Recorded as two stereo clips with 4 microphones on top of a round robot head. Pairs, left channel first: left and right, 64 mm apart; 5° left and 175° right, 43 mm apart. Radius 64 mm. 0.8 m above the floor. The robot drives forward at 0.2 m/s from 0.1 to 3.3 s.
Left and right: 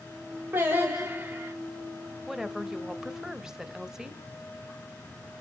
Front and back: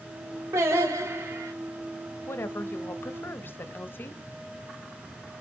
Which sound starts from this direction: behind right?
Singing, at 0.5 s.